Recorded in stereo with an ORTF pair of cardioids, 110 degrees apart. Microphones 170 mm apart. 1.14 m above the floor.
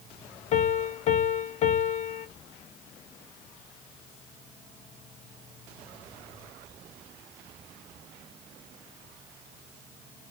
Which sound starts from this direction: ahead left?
A piano, at 0.5 s.